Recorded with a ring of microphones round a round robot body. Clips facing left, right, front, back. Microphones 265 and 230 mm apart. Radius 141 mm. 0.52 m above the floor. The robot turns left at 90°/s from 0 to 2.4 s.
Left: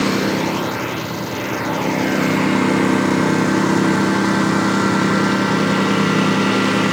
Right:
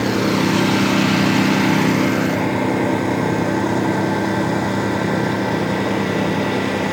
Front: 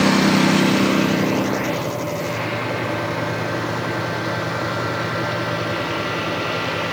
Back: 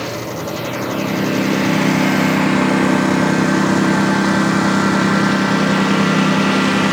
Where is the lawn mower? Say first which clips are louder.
Right 1 dB, front 9 dB; 15° left; by 6.9 s 160° left.